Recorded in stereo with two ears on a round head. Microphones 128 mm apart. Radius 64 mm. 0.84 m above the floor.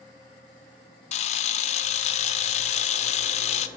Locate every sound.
1.1 s a camera shutter: 50° left (ahead or behind), 0.6 m